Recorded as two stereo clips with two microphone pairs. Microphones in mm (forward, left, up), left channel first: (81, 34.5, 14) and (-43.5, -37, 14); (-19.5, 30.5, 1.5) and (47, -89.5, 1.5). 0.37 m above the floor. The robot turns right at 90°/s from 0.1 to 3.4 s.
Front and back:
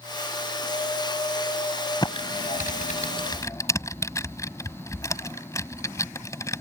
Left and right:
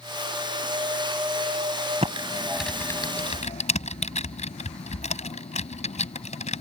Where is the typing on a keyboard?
30° right; by 6.6 s 95° left.